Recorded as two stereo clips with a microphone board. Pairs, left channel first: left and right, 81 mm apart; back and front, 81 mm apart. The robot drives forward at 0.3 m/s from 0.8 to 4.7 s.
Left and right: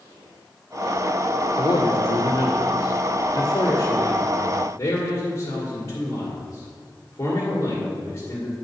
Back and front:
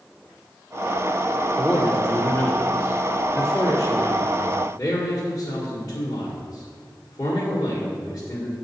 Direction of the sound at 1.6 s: 110° left.